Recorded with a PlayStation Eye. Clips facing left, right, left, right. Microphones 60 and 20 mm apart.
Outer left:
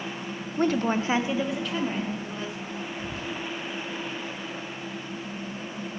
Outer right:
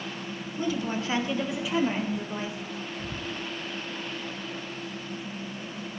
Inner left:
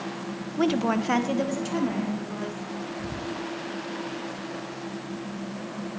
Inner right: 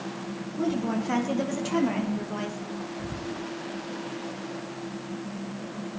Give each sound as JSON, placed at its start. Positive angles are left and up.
{"t": 0.6, "sound": "a woman speaking", "side_deg": 65, "distance_m": 0.9}
{"t": 3.0, "sound": "whispering", "side_deg": -15, "distance_m": 0.9}